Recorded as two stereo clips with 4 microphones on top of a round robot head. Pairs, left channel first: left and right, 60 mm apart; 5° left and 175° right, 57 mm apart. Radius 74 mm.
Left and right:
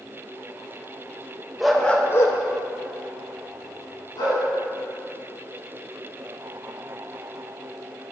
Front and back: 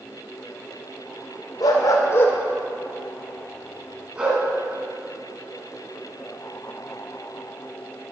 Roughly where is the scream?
I don't hear a scream.